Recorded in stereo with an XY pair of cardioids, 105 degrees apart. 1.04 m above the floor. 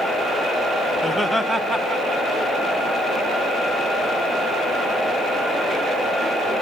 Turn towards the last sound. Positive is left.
turn(degrees=-40)